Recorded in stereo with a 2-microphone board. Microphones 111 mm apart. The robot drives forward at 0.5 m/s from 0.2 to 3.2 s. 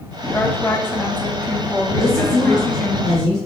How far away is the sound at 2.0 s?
About 2 m.